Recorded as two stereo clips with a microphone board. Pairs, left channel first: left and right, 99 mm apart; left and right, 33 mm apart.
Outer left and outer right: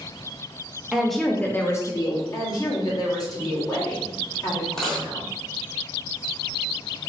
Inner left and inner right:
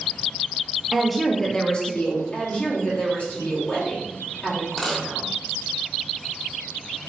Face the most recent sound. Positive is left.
turn(degrees=5)  # may be behind; listen again after turning